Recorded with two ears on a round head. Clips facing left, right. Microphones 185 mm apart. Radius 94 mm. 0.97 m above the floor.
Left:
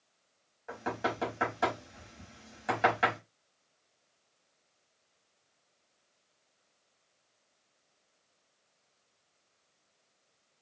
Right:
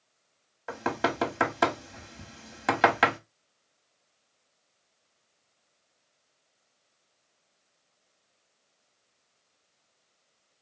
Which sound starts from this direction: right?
Knocking, at 0.7 s.